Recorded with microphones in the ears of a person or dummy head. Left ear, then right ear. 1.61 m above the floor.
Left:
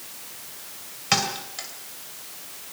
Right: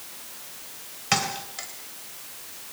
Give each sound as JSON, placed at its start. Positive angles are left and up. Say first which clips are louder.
{"t": 1.1, "sound": "a thud", "louder": "left 2 dB", "side_deg": -5, "distance_m": 2.5}